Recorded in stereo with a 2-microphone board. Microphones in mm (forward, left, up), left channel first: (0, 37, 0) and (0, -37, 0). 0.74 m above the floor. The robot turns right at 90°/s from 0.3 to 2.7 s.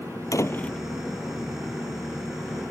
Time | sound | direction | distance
0.3 | a door slam | 130° left | ?